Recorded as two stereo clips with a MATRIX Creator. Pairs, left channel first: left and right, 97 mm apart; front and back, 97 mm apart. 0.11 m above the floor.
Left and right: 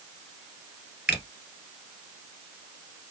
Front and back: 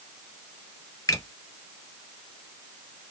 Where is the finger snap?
20° right, 1.6 m.